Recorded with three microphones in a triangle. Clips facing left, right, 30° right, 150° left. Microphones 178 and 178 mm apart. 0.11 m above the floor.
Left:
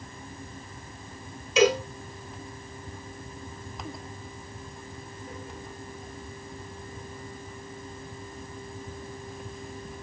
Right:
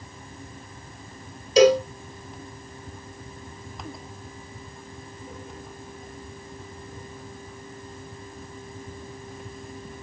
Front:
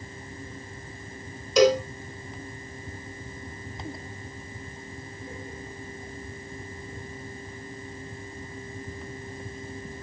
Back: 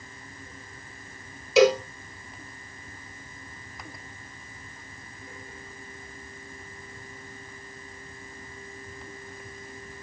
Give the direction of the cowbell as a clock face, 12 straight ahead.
4 o'clock.